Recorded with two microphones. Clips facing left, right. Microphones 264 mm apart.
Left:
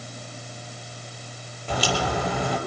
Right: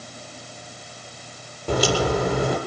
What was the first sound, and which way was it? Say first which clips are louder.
A crack: right 6 dB; 50° right (ahead or behind).